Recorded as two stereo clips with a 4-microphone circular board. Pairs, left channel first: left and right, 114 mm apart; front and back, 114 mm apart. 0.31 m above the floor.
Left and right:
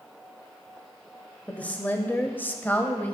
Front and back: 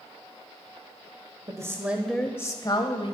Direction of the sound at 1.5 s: 160° left.